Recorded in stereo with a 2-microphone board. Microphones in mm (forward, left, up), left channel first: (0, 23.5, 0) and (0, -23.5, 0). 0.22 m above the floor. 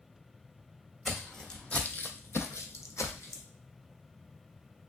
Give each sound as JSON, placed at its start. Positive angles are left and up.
{"t": 1.1, "sound": "footsteps", "side_deg": 0, "distance_m": 0.8}